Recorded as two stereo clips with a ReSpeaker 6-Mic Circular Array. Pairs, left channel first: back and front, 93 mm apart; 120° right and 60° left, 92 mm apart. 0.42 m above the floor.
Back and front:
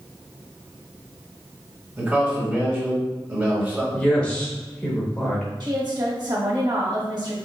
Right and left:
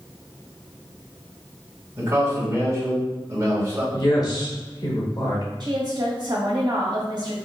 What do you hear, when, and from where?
2.0 s a man speaking: 50° left, 1.6 m
3.9 s a woman speaking: 110° right, 1.1 m
5.6 s a woman speaking: 30° left, 1.7 m